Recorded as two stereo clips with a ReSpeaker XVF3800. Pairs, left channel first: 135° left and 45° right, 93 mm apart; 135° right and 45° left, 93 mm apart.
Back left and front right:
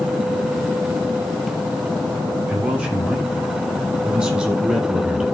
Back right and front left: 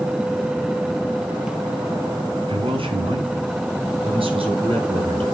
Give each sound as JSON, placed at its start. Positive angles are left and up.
{"t": 2.5, "sound": "a man speaking", "azimuth_deg": 30, "distance_m": 7.0}